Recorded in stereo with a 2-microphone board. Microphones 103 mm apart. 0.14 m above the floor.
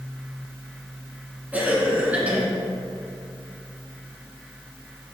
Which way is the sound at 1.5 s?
15° right (ahead or behind).